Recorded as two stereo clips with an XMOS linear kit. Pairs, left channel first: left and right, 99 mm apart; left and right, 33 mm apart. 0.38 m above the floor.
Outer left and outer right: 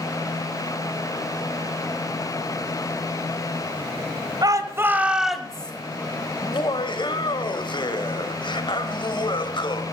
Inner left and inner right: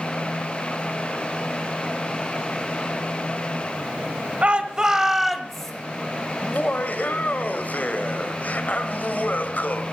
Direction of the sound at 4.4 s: 40° right (ahead or behind).